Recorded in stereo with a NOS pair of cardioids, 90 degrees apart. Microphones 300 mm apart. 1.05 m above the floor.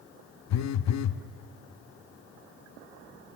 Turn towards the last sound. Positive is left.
turn(degrees=65)